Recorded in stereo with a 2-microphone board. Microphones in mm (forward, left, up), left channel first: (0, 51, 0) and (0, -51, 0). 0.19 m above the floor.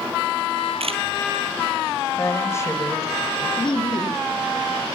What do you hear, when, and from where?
0.8 s a camera shutter: 70° right (ahead or behind), 2 m
2.1 s a woman speaking: 25° left (ahead or behind), 4 m
3.6 s laughter: 50° left (ahead or behind), 3 m